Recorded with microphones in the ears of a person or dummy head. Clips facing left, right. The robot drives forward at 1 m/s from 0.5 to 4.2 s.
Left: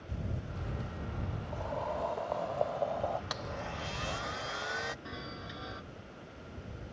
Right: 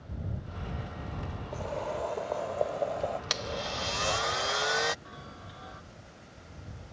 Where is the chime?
35° left (ahead or behind).